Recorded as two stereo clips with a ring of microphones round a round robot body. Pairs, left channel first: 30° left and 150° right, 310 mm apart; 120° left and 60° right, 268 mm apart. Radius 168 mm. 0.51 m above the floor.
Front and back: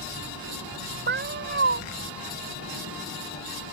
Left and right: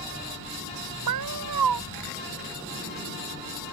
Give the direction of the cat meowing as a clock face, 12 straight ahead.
3 o'clock.